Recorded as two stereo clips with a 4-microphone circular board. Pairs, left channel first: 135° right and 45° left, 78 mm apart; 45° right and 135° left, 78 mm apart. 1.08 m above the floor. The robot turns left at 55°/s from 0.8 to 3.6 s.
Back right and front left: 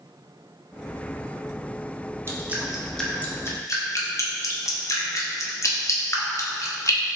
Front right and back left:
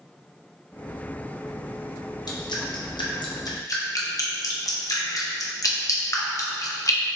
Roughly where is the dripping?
Ahead.